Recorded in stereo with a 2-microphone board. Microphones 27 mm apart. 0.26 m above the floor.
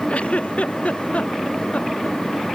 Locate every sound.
0.1 s a giggle: 55° left (ahead or behind)